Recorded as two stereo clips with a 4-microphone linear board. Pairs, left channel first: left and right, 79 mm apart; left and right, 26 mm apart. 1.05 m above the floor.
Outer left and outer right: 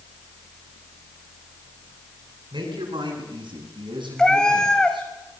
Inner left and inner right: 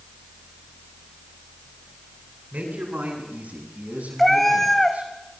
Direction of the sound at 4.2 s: 10° left (ahead or behind).